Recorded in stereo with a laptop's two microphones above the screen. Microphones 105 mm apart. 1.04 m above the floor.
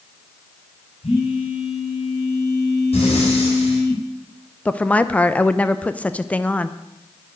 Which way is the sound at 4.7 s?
10° left (ahead or behind).